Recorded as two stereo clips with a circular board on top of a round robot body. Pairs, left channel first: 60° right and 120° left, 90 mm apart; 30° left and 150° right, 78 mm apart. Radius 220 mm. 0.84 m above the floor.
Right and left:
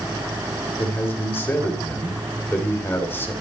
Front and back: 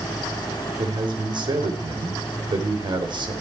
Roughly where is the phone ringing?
No phone ringing in this recording.